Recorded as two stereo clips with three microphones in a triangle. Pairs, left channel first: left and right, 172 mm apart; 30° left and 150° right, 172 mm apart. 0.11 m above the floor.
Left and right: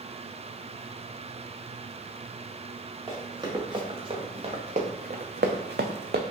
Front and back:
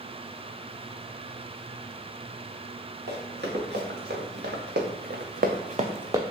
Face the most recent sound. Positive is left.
turn(degrees=-75)